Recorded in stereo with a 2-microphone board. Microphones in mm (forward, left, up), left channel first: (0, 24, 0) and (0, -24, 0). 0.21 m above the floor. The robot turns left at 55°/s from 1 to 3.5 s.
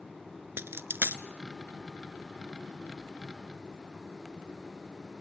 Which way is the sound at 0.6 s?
60° right (ahead or behind).